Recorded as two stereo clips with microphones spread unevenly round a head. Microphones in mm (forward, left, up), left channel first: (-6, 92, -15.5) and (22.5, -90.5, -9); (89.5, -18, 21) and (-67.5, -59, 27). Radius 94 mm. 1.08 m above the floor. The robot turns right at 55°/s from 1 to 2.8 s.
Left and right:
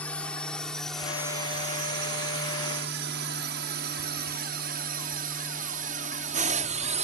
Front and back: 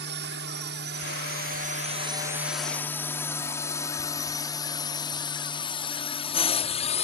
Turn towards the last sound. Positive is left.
turn(degrees=-30)